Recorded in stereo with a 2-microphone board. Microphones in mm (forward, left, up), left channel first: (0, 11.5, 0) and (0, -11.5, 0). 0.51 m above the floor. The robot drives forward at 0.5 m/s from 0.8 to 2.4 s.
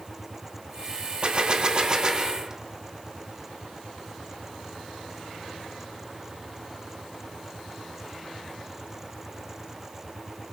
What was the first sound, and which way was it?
A gunshot, 45° right (ahead or behind).